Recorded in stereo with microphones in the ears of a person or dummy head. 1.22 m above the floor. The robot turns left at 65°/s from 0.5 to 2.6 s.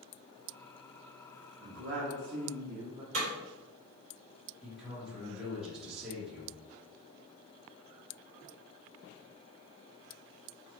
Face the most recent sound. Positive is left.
turn(degrees=0)  # may be behind; listen again after turning